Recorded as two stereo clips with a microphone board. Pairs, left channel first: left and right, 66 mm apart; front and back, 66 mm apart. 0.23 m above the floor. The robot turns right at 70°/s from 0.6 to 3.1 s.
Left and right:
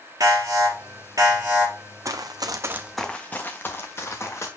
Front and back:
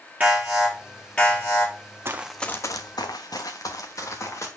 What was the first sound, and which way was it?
An alarm, 115° right.